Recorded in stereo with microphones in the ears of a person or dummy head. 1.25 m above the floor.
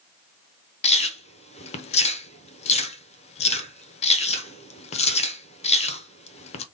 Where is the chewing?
30° left (ahead or behind), 0.8 m.